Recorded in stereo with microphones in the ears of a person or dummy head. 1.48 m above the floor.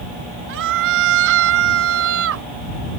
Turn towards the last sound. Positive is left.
turn(degrees=-80)